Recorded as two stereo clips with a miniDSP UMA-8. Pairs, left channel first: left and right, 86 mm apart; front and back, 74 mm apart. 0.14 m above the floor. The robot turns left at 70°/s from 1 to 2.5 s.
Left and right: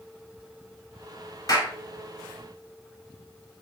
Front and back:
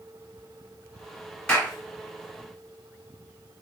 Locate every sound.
1.5 s a clap: 75° left, 1.7 m; by 1.7 s 60° left, 1.7 m